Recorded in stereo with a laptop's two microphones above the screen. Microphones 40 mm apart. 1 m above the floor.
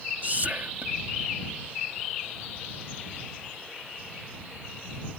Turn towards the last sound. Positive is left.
turn(degrees=-40)  # may be behind; listen again after turning